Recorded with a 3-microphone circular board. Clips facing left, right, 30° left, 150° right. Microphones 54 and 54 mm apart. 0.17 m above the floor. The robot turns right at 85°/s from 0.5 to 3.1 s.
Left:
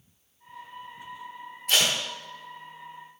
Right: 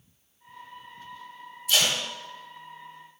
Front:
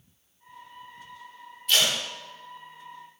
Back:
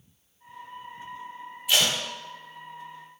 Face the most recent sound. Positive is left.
turn(degrees=-110)